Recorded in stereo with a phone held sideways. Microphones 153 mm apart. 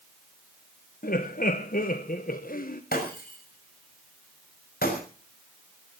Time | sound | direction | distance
1.0 | laughter | 70° left (ahead or behind) | 1.2 m
2.9 | breaking glass | 85° left | 6 m